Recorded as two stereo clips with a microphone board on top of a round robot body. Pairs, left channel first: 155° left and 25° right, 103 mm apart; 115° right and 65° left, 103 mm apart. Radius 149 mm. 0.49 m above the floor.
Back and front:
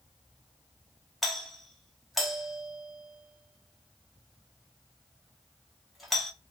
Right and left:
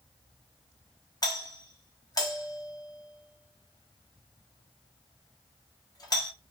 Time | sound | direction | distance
1.2 | a doorbell | 115° right | 1.3 m